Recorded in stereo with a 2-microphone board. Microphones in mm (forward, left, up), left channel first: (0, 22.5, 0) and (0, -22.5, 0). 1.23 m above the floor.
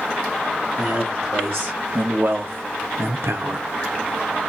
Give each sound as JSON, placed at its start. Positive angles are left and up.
{"t": 0.8, "sound": "a man speaking", "side_deg": -40, "distance_m": 1.9}